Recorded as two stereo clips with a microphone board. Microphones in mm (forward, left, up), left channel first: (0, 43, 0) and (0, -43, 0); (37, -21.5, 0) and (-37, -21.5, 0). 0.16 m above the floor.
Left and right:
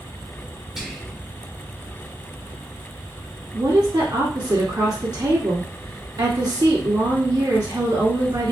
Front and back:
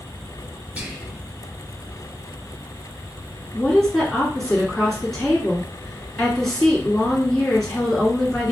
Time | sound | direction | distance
0.8 | whispering | 170° right | 1.0 m
3.5 | a woman speaking | 85° right | 1.9 m